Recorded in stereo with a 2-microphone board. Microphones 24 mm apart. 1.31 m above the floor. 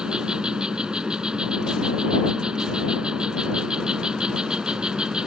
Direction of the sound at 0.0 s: 35° right (ahead or behind).